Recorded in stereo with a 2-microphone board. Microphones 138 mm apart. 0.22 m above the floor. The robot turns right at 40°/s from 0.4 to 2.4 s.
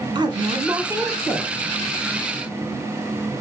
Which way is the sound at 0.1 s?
45° right.